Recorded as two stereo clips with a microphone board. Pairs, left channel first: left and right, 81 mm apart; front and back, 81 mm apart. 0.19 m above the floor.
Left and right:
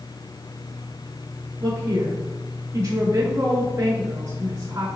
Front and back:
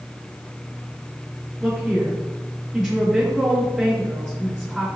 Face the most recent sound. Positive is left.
turn(degrees=-110)